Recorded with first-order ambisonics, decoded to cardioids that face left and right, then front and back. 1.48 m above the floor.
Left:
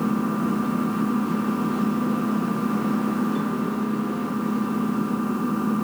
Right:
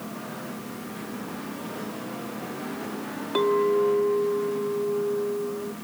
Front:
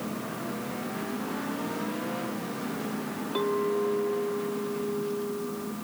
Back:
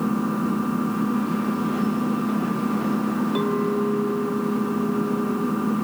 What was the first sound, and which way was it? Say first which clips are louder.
An engine running: left 11 dB, back 9 dB; 135° left.